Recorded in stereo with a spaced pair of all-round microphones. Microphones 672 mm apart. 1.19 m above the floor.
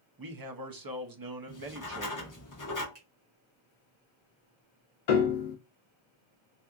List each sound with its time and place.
0.2 s a man speaking: 35° right (ahead or behind), 0.6 m
1.5 s writing: 30° left (ahead or behind), 0.6 m
3.0 s a finger snap: 55° right (ahead or behind), 1.1 m
5.1 s a piano: 80° left, 0.6 m